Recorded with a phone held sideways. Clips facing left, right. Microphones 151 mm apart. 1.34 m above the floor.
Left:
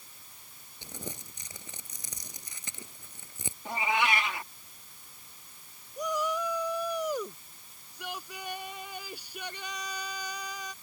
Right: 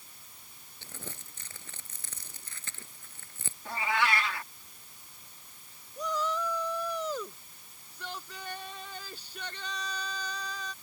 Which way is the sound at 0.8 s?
15° left (ahead or behind).